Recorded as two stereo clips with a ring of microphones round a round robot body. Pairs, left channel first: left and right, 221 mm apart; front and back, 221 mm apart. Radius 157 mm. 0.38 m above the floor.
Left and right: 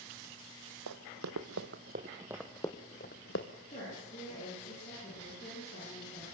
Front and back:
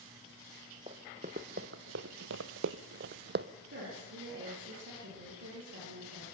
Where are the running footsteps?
105° right, 1.0 m; by 3.5 s 140° left, 0.9 m.